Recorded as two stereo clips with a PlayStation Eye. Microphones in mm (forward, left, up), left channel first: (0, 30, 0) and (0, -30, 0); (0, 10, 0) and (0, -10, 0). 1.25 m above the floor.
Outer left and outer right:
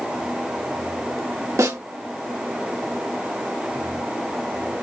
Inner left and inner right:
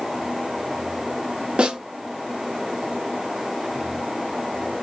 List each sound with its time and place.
1.6 s a snare drum: 70° right (ahead or behind), 1.7 m